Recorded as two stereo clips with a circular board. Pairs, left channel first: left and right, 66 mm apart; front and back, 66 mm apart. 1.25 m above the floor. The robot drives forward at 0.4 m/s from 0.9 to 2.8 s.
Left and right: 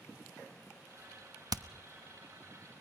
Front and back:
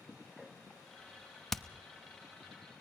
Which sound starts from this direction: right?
Hammering, at 1.5 s.